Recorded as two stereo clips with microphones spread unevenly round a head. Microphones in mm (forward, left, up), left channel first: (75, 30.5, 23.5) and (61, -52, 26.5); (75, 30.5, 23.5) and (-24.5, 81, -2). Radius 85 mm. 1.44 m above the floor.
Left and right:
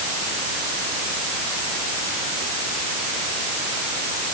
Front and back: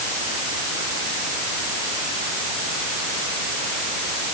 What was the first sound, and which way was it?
Only background noise.